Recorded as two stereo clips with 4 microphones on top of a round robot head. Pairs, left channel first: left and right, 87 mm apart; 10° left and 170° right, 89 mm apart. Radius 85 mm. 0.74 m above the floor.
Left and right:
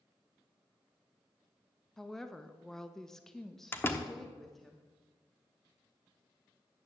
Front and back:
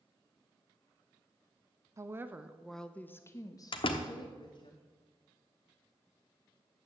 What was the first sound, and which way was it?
A woman speaking, 175° left.